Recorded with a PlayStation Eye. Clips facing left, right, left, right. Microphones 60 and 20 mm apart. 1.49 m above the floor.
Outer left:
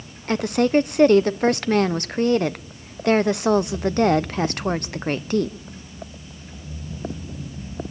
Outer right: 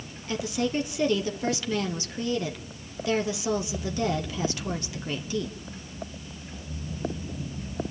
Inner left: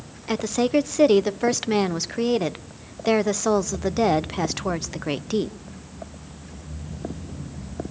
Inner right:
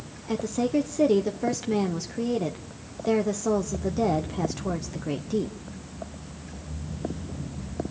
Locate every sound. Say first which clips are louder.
0.3 s a woman speaking: outer left 9 dB, inner left 4 dB; 55° left (ahead or behind), 0.9 m